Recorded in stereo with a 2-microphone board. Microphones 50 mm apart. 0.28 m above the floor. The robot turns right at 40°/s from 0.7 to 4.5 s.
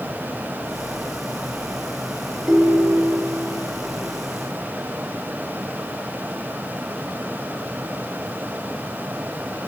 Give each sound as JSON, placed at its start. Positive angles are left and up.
{"t": 2.5, "sound": "a ringtone", "azimuth_deg": -5, "distance_m": 1.8}